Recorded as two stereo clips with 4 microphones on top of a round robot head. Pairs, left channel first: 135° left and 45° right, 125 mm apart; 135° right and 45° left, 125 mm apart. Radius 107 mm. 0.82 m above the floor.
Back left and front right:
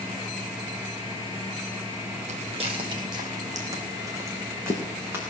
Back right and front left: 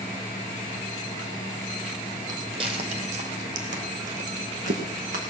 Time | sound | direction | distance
2.3 | footsteps | 15° right | 1.1 m